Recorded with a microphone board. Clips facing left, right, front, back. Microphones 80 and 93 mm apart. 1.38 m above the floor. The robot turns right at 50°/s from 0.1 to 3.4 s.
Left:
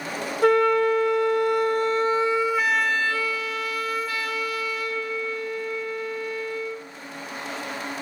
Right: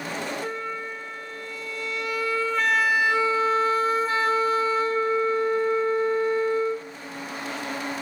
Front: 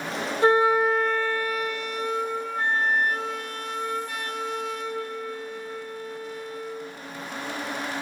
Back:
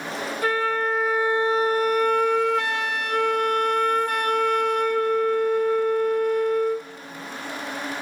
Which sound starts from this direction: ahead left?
A flute, at 0.4 s.